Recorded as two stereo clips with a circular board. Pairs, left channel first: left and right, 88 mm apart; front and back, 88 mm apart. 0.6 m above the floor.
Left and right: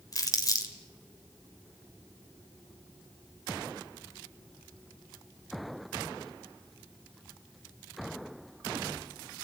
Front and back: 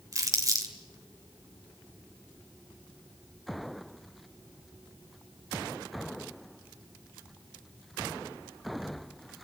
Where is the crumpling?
135° left, 2 m.